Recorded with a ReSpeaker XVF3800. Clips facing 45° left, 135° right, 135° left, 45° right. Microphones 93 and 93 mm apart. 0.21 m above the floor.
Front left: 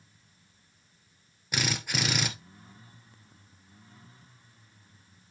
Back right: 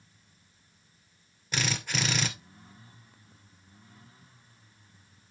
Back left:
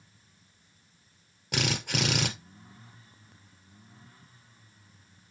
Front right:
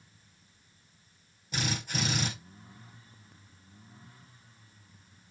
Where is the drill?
125° left, 2.5 m.